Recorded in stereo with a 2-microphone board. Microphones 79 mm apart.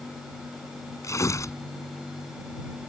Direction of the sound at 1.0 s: 40° left (ahead or behind).